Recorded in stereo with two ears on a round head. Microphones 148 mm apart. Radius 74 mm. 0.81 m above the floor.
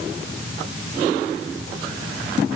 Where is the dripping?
No dripping in this recording.